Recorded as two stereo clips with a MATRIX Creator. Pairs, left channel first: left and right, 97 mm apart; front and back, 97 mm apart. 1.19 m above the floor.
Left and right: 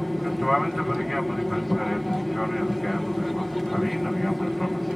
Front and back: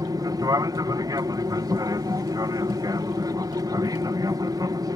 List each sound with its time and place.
0.0 s an aircraft: straight behind